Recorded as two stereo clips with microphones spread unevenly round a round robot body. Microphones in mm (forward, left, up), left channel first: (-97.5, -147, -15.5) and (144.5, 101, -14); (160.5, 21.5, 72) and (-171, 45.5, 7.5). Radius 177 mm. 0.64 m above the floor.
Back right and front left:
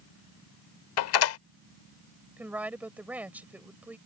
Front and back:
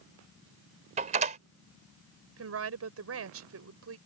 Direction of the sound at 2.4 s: 130° left.